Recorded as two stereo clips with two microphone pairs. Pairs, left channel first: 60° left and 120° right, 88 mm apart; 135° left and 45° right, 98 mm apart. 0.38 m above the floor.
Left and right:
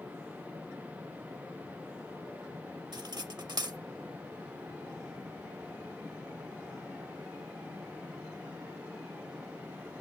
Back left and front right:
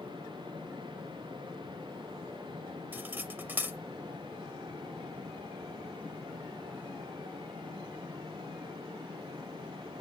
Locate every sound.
2.9 s cutlery clinking: 110° right, 0.7 m